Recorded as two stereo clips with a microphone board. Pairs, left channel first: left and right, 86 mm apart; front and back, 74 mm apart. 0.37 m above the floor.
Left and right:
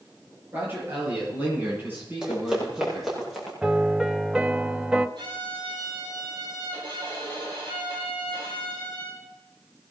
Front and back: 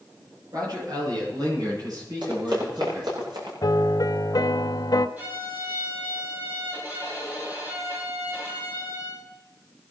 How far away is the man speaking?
About 9.5 m.